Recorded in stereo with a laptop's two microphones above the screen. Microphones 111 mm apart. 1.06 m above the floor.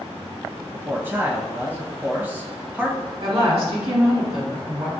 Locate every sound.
0.7 s a man speaking: 15° right (ahead or behind), 1.0 m
3.2 s a woman speaking: 65° right (ahead or behind), 1.7 m